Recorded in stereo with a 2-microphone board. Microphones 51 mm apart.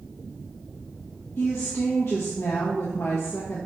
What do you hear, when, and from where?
1.4 s a woman speaking: 55° left (ahead or behind), 1.5 m